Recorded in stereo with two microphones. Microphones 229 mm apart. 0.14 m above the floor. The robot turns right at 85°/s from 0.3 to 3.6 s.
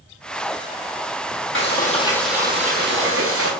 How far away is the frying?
About 0.9 m.